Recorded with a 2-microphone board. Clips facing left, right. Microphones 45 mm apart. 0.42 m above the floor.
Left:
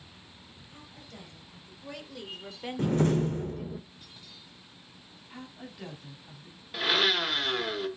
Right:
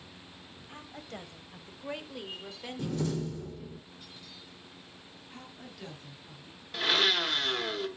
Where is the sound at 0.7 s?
50° right (ahead or behind), 2.5 m; by 3.8 s 55° left (ahead or behind), 1.9 m.